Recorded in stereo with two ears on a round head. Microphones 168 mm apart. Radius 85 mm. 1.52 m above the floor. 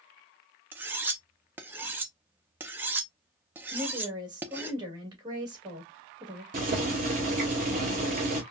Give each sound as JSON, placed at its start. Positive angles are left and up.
{"t": 0.7, "sound": "cutlery clinking", "side_deg": -10, "distance_m": 0.6}
{"t": 3.7, "sound": "a woman speaking", "side_deg": -20, "distance_m": 2.0}
{"t": 6.5, "sound": "boiling", "side_deg": -40, "distance_m": 2.0}